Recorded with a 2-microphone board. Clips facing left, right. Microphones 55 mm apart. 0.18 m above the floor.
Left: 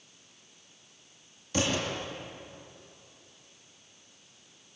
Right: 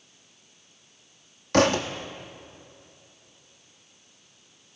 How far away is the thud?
About 2.5 m.